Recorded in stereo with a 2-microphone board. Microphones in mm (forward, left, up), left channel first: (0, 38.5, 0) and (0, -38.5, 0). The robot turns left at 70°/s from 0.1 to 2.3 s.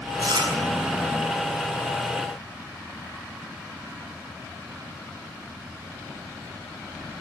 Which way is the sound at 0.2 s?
60° right (ahead or behind).